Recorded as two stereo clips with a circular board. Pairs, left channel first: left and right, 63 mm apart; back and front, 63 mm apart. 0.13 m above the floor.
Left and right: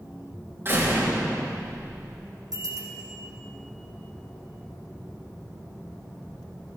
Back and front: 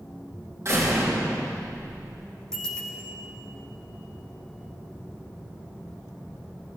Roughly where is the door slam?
Ahead right.